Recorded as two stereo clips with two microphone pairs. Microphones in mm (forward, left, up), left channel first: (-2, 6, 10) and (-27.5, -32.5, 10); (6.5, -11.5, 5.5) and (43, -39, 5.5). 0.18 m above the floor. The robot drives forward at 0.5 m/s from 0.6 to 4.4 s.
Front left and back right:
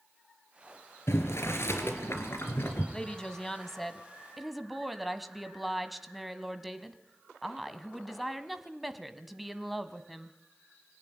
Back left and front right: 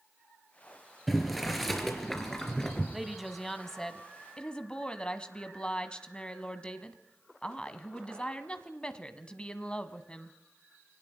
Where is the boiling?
50° left, 3.5 m; by 2.8 s 65° left, 3 m.